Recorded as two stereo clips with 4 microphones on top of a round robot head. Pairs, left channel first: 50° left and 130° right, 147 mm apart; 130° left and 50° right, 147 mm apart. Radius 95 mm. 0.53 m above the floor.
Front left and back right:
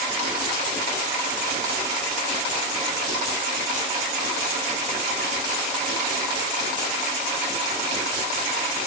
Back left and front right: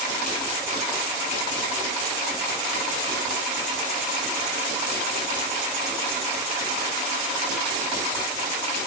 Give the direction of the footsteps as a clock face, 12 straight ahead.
I don't hear footsteps.